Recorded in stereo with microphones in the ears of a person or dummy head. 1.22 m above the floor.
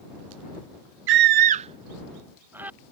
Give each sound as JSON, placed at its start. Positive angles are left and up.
{"t": 1.1, "sound": "a scream", "side_deg": -65}